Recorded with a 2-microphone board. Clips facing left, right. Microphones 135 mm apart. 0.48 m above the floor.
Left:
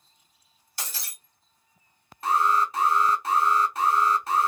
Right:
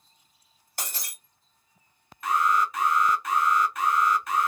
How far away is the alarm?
About 0.6 m.